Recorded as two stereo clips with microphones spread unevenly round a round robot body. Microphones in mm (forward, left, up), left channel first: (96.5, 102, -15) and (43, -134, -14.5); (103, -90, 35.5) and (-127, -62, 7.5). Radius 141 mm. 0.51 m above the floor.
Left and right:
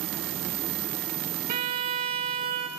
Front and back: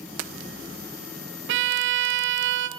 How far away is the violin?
About 0.7 m.